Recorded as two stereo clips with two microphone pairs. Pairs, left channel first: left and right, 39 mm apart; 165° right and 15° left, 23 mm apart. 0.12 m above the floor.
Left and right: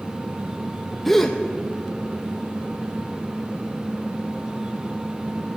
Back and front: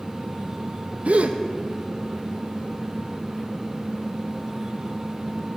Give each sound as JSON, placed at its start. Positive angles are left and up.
{"t": 1.1, "sound": "a gasp", "azimuth_deg": 5, "distance_m": 0.9}